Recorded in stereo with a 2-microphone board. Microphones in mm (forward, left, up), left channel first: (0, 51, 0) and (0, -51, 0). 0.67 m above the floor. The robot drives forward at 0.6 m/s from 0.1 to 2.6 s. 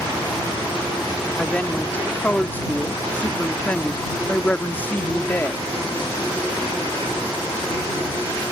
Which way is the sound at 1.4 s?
15° left (ahead or behind).